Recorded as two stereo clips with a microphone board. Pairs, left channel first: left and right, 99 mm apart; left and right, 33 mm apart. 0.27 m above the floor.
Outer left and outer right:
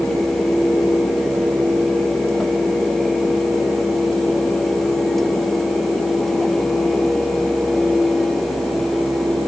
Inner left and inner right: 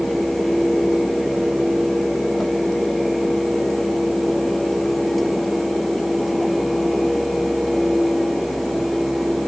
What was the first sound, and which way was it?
Only background noise.